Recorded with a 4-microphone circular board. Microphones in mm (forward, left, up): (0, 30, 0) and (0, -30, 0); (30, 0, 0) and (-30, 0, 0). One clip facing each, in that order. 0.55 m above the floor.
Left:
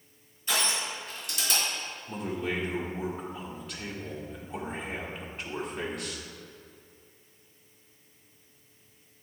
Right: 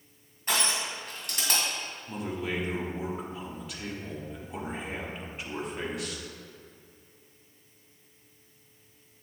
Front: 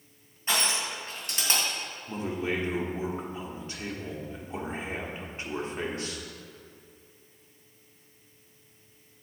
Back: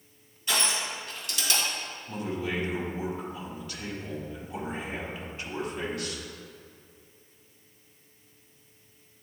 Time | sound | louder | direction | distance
0.5 | crushing | right 1 dB, even | 55° right | 2 m
2.1 | a man speaking | left 1 dB, front 1 dB | 5° right | 1.2 m